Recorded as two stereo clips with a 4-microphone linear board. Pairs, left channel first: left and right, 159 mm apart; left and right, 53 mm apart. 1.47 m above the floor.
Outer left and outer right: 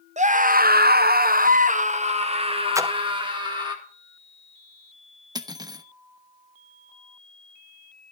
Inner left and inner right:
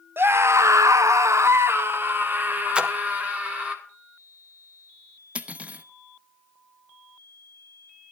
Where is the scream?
50° right (ahead or behind), 0.7 m; by 3.8 s 30° right (ahead or behind), 2 m.